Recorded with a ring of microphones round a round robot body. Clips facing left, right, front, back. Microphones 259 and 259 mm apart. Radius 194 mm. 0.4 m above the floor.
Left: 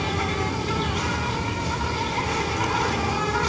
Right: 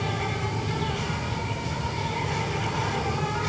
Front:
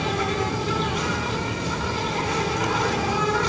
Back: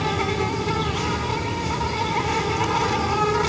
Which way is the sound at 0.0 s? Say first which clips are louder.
Left 4 dB, back 1 dB; 80° left.